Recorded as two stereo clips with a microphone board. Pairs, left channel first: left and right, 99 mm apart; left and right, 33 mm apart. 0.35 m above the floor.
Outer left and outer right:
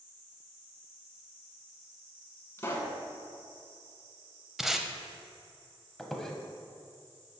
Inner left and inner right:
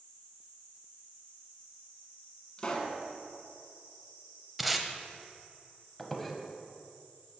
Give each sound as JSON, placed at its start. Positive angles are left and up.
{"t": 2.6, "sound": "a pop", "side_deg": 30, "distance_m": 0.9}
{"t": 4.6, "sound": "tape being pulled", "side_deg": -5, "distance_m": 0.5}
{"t": 6.0, "sound": "a squeak", "side_deg": 5, "distance_m": 0.7}